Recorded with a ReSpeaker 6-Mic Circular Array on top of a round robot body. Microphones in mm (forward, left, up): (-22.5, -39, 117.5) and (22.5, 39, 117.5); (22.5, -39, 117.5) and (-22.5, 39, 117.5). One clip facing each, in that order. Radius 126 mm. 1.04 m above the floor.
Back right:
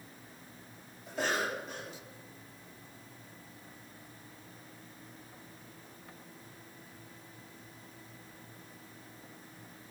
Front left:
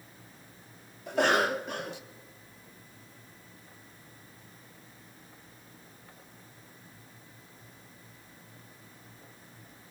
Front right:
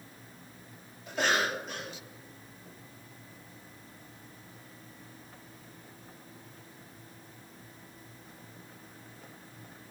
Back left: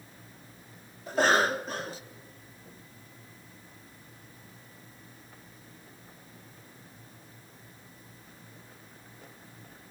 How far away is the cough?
About 1.4 m.